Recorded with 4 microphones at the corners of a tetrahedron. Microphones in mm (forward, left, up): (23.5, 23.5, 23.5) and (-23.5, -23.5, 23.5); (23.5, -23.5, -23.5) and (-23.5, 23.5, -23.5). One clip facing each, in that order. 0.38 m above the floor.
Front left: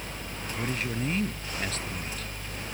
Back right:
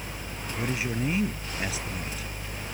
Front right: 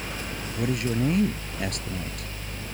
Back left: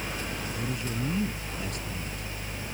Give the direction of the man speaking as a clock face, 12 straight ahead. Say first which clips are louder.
Back right 2 dB, front right 10 dB; 2 o'clock.